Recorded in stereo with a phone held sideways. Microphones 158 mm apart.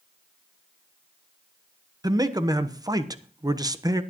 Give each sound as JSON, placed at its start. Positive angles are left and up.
{"t": 2.0, "sound": "a man speaking", "side_deg": -25, "distance_m": 1.0}